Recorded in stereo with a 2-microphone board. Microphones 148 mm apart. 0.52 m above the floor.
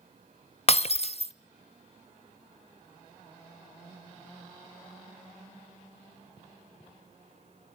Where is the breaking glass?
45° left (ahead or behind), 0.7 m.